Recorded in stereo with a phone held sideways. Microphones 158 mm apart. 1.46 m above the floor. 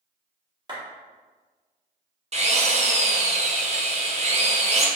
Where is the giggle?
I don't hear a giggle.